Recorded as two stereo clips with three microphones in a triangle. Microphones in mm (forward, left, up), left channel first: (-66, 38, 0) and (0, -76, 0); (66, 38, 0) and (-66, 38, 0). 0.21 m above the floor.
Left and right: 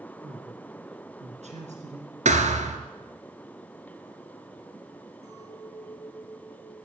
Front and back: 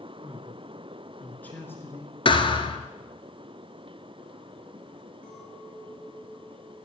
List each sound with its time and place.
0.2 s a man speaking: 100° right, 2.5 m; by 2.1 s 65° right, 3 m
2.2 s a thud: 45° right, 1.4 m
5.2 s a clink: 5° left, 8.5 m